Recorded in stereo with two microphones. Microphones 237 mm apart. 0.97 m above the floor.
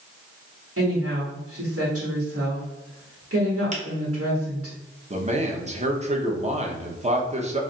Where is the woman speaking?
75° right (ahead or behind), 1.5 m.